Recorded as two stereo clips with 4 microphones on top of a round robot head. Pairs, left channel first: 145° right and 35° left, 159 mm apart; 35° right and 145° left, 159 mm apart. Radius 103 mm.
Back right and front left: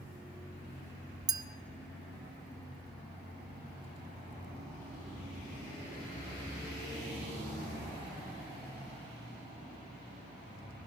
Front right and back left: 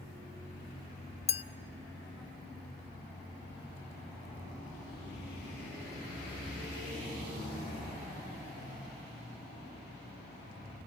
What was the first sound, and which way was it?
A clink, 15° right.